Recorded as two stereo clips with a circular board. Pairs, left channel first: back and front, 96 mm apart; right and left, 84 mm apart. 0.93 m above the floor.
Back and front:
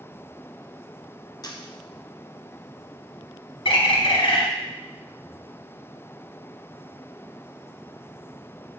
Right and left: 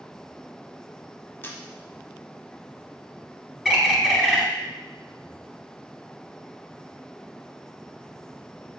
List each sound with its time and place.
1.4 s a camera shutter: 150° right, 0.6 m
3.6 s a bird: 175° left, 0.8 m